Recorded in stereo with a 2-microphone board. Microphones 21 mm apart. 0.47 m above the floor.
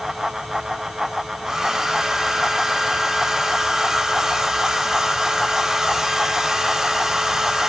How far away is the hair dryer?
About 1.3 m.